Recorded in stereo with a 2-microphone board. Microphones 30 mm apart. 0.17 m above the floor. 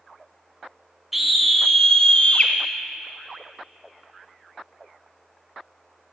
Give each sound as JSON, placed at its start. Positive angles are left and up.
{"t": 1.1, "sound": "a scream", "side_deg": -10, "distance_m": 1.1}